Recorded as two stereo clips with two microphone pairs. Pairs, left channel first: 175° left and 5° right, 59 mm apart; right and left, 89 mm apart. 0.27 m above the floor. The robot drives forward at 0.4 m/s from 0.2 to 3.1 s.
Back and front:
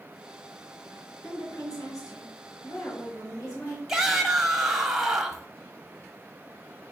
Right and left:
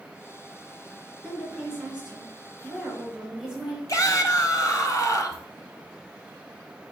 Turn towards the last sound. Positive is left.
turn(degrees=-85)